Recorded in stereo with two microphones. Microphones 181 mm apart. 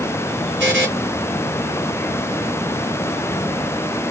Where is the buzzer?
80° right, 2 m.